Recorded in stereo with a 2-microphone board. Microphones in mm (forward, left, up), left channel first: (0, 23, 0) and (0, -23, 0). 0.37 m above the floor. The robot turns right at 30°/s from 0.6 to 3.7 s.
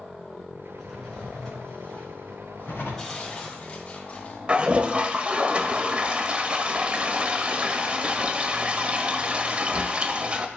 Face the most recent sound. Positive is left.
turn(degrees=-30)  # may be behind; listen again after turning